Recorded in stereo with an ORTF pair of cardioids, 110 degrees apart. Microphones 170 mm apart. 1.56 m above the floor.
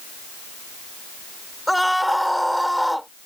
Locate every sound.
1.7 s a scream: straight ahead